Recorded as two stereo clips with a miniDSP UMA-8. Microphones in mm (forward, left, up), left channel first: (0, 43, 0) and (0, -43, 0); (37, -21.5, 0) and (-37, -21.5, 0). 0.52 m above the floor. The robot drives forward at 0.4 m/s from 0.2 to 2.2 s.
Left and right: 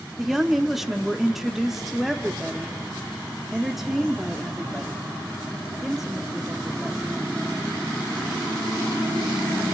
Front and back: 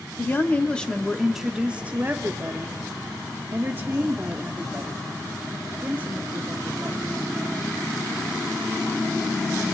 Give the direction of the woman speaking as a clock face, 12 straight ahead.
12 o'clock.